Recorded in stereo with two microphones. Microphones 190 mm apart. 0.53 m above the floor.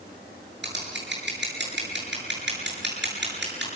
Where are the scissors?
70° right (ahead or behind), 9 m.